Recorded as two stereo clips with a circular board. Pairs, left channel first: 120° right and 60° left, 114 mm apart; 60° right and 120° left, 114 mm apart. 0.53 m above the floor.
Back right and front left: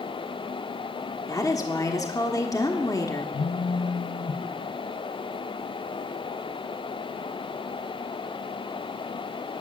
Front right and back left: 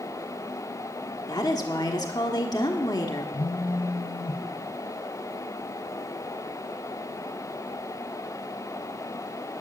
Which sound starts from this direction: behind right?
A phone buzzing, at 3.3 s.